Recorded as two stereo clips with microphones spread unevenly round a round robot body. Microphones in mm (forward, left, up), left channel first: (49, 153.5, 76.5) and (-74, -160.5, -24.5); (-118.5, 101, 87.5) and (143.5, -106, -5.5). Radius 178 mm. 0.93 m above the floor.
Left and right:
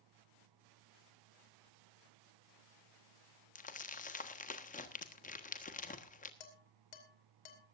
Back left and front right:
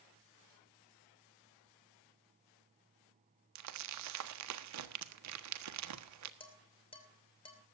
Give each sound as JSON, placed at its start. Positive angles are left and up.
{"t": 3.5, "sound": "crumpling", "azimuth_deg": -5, "distance_m": 1.4}
{"t": 6.4, "sound": "dishes clattering", "azimuth_deg": 65, "distance_m": 3.0}